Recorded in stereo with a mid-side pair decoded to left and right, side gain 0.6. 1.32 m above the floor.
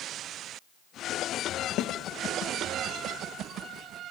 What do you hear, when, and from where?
1.8 s a snare drum: 65° left, 1.4 m